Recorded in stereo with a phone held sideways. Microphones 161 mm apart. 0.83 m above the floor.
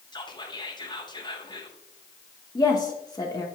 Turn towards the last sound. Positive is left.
turn(degrees=25)  # may be behind; listen again after turning